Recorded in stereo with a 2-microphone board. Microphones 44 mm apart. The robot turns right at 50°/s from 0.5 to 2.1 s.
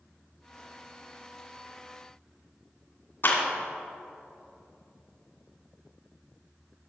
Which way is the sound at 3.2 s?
50° left (ahead or behind).